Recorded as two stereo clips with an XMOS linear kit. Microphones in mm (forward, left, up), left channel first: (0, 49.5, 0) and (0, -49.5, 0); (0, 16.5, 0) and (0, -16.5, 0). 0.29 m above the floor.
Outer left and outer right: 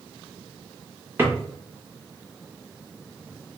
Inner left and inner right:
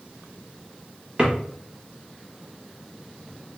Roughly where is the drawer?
Right.